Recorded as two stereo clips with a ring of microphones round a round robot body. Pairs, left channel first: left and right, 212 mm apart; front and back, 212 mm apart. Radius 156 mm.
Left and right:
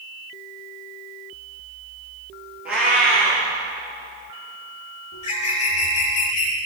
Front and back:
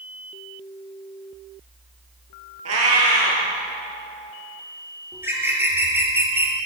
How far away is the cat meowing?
About 3 m.